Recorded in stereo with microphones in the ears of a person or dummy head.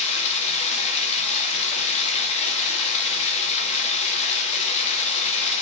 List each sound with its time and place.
0.0 s running water: 35° left (ahead or behind), 3 m